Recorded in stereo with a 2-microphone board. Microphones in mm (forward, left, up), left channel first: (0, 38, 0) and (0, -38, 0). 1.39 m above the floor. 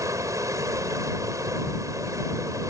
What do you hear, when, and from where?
0.0 s running water: 45° right (ahead or behind)